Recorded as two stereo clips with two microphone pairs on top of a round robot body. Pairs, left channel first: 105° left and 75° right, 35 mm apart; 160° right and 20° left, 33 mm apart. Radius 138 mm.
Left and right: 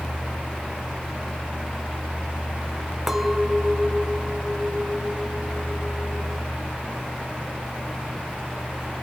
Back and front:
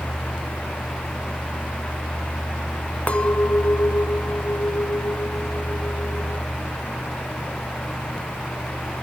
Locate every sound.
3.1 s a clink: 160° right, 1.7 m